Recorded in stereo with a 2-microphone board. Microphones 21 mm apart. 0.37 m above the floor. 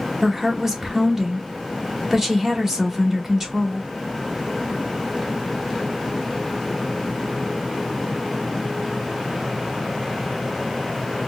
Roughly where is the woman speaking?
Right.